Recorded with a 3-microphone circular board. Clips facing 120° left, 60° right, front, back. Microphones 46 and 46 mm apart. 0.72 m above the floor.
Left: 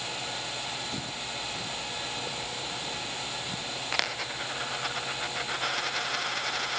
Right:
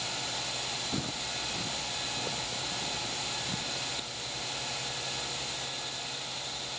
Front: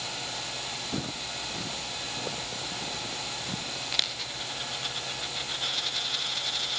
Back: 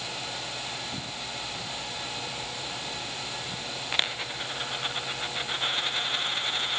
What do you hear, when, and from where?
0.9 s footsteps: 10° left; by 3.8 s 25° left
3.9 s a dropped coin: 120° left